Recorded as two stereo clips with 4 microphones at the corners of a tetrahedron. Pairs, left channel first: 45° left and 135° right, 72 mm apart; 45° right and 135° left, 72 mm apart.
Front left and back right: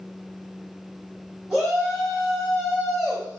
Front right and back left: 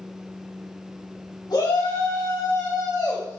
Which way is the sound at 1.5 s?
50° right.